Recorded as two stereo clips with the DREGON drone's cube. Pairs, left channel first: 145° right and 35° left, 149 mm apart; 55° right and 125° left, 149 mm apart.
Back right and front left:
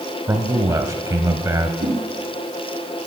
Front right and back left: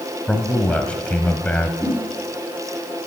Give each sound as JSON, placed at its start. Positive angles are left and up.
{"t": 0.3, "sound": "a man speaking", "azimuth_deg": 15, "distance_m": 1.0}
{"t": 1.8, "sound": "a whoosh", "azimuth_deg": 45, "distance_m": 5.0}